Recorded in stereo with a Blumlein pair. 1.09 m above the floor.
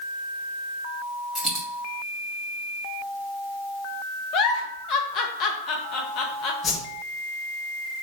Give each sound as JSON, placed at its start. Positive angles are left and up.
{"t": 1.4, "sound": "a dropped coin", "azimuth_deg": 10, "distance_m": 1.2}
{"t": 4.3, "sound": "a giggle", "azimuth_deg": 35, "distance_m": 0.5}
{"t": 6.6, "sound": "a whoosh", "azimuth_deg": 25, "distance_m": 0.7}